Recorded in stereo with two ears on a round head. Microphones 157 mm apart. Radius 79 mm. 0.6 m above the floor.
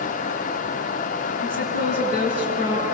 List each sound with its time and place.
1.4 s a woman speaking: 35° right (ahead or behind), 6.5 m